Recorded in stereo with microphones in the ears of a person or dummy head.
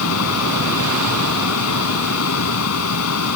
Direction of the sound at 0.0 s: 80° left.